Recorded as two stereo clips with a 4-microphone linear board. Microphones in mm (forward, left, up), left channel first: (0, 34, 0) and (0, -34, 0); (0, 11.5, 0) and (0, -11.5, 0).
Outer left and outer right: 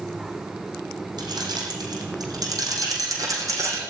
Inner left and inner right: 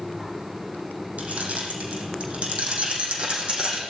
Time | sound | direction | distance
1.2 | keys jangling | 75° right (ahead or behind) | 6 m